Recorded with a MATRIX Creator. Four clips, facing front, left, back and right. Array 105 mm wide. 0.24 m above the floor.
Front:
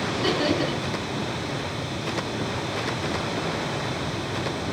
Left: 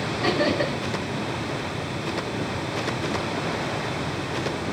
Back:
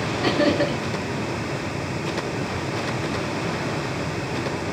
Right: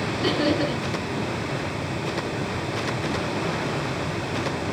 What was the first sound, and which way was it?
Laughter, 135° left.